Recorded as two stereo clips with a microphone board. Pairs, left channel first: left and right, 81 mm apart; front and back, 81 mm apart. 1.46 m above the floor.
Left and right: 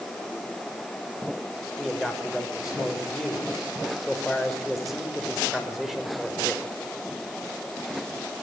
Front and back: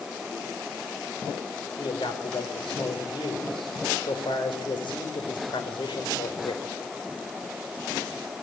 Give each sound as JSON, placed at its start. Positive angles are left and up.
{"t": 1.8, "sound": "a man speaking", "azimuth_deg": 0, "distance_m": 4.5}